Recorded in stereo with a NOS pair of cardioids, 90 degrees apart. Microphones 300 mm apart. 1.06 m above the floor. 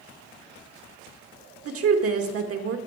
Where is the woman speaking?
50° right, 1.4 m.